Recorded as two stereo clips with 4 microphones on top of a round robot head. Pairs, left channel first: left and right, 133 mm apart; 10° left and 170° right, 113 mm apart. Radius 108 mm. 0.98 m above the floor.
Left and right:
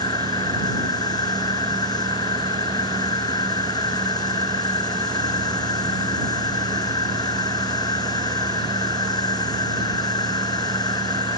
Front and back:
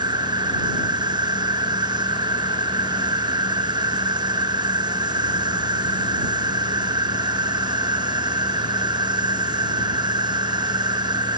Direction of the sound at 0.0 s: 145° left.